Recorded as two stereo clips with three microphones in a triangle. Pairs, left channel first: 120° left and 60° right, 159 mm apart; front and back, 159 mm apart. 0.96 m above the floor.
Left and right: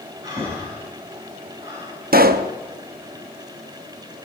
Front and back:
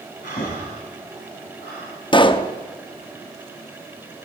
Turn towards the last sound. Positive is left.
turn(degrees=-55)